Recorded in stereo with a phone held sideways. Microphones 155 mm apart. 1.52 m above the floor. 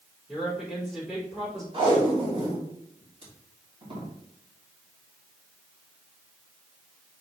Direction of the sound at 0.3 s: Centre (ahead or behind).